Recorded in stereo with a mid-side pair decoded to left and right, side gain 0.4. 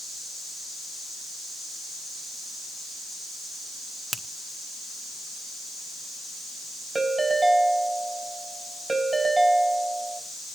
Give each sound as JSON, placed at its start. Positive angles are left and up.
{"t": 4.1, "sound": "a finger snap", "azimuth_deg": -30, "distance_m": 1.2}
{"t": 7.0, "sound": "a ringtone", "azimuth_deg": -40, "distance_m": 4.5}